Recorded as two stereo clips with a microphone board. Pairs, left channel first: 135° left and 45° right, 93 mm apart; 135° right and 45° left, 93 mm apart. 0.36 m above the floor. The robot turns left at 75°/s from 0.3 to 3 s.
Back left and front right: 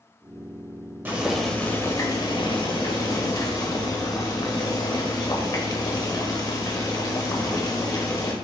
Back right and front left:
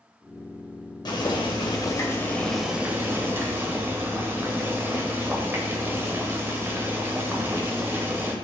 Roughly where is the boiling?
Right.